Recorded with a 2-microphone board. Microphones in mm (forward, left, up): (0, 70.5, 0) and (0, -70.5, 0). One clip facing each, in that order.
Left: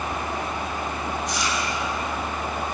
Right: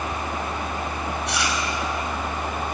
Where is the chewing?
70° right (ahead or behind), 5 m.